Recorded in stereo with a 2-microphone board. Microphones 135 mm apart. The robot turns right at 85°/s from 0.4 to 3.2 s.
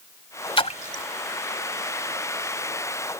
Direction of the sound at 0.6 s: 40° left (ahead or behind).